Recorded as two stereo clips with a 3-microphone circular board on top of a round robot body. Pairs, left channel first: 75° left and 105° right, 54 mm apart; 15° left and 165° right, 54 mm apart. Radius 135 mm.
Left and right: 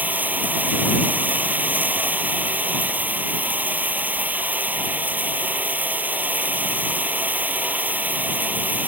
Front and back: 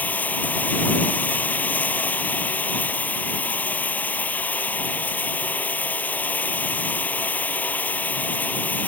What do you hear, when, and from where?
0.0 s running water: 45° right